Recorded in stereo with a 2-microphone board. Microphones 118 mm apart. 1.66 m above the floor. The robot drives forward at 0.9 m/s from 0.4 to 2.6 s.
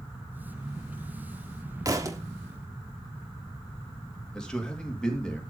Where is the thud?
30° right (ahead or behind), 1.3 m; by 2.2 s 25° right (ahead or behind), 1.5 m.